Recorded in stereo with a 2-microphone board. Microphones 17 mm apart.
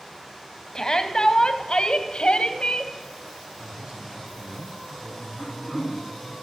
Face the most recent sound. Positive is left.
turn(degrees=0)  # may be behind; listen again after turning